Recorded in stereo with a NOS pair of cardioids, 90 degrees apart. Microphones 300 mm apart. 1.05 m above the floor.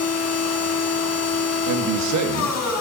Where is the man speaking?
65° right, 1.4 m.